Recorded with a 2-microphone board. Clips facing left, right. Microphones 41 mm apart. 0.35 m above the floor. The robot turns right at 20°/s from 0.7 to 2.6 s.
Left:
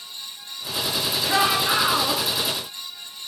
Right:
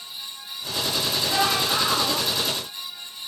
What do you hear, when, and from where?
1.2 s a shout: 40° left (ahead or behind), 4.5 m; by 2.2 s 60° left (ahead or behind), 4.5 m